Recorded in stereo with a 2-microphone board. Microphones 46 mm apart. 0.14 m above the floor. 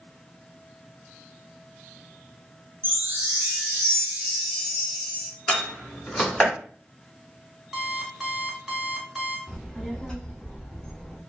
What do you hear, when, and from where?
2.8 s a chime: 50° right (ahead or behind), 1.6 m
5.5 s a door slam: 10° left (ahead or behind), 1.2 m
7.7 s an alarm clock: 5° right (ahead or behind), 1.1 m
9.5 s a child speaking: 15° left (ahead or behind), 1.1 m